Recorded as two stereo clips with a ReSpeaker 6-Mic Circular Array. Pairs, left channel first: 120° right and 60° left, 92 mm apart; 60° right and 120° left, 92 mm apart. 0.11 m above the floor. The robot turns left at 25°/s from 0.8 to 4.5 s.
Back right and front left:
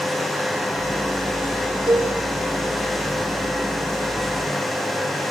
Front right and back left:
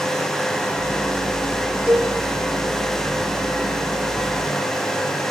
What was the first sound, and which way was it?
A cowbell, 40° left.